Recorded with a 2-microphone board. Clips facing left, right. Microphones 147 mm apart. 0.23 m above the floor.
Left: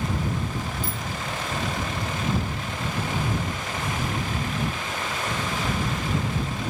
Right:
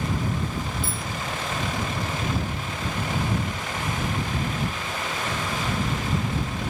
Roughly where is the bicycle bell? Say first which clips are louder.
Even; left.